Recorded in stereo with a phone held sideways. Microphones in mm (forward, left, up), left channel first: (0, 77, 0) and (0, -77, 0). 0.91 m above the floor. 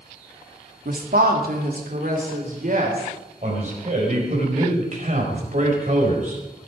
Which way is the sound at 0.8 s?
65° right (ahead or behind).